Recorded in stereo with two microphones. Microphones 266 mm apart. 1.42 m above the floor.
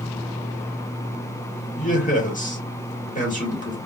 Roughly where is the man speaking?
Left.